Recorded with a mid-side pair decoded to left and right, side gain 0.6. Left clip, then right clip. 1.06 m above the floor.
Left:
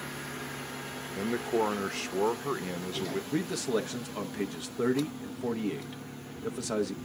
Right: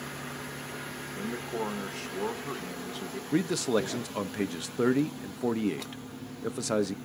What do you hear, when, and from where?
1.1 s a man speaking: 30° left, 0.7 m
3.3 s a man speaking: 25° right, 0.6 m